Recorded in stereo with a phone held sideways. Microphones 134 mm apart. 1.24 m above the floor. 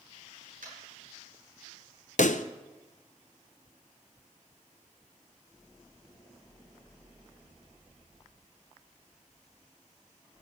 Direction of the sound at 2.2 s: 70° left (ahead or behind).